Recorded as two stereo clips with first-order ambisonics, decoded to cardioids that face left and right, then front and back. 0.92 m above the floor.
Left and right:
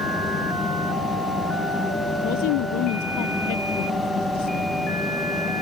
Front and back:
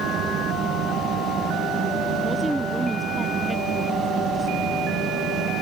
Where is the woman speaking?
95° left.